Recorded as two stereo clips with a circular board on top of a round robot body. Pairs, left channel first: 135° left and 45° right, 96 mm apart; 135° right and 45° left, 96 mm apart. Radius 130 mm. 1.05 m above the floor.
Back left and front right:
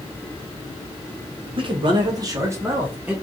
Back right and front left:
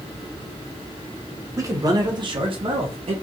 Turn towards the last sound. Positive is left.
turn(degrees=35)